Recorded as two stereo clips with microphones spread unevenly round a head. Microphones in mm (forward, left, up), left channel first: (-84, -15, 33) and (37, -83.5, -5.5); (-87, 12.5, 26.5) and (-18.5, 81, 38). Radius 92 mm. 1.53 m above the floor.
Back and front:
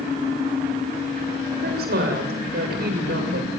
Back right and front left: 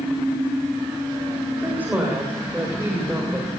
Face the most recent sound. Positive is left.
turn(degrees=-35)